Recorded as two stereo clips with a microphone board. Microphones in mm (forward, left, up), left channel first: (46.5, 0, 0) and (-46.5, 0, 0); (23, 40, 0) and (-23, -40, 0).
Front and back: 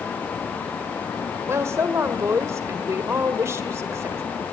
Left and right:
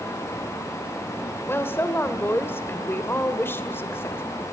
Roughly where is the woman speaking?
Behind left.